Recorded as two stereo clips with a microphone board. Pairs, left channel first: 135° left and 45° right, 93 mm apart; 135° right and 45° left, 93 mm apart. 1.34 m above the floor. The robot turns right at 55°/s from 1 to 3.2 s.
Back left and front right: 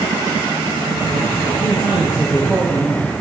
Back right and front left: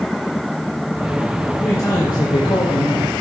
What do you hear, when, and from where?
1.6 s a man speaking: 160° left, 1.1 m; by 3.1 s 120° right, 1.1 m